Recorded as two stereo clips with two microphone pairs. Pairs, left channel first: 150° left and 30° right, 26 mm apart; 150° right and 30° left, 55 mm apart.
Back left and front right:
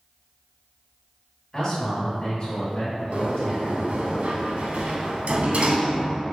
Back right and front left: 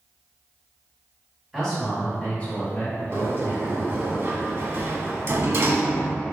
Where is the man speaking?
130° left, 1.5 m; by 4.1 s 175° right, 2 m.